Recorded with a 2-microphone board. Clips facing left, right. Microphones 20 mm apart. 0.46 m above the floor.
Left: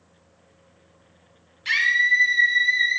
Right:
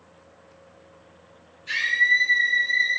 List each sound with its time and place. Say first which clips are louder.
1.6 s a scream: left 2 dB; 70° left (ahead or behind), 4.5 m; by 3.0 s 75° left (ahead or behind), 5.5 m